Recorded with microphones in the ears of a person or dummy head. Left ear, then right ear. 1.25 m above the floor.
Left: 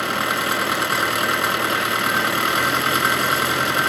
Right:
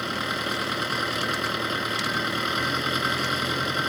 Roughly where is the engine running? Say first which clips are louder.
Left 7 dB; left.